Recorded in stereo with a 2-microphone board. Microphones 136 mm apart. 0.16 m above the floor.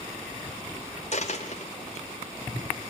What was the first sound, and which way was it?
A dropped coin, 55° left (ahead or behind).